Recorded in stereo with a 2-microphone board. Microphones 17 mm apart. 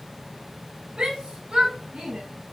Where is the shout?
70° right (ahead or behind), 5.5 m; by 2.2 s 80° right, 5.5 m.